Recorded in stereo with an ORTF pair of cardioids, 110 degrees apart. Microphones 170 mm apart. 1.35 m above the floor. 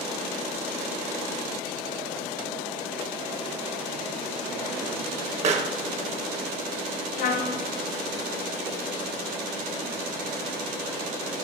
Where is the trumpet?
60° left, 0.9 m.